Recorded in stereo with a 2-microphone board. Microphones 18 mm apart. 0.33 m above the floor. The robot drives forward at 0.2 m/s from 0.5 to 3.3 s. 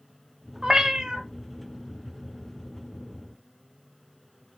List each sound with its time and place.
0.6 s a cat meowing: 50° right (ahead or behind), 0.5 m; by 1.2 s 60° right (ahead or behind), 0.5 m